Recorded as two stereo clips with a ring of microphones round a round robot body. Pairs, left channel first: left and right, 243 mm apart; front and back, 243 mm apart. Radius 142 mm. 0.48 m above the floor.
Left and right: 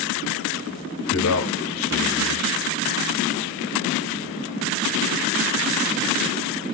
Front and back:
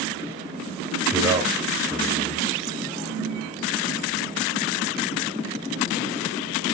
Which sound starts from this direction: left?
A man speaking, at 1.1 s.